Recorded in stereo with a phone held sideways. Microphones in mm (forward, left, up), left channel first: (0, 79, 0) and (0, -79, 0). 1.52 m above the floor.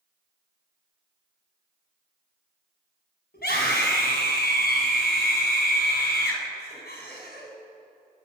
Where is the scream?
90° left, 7 m.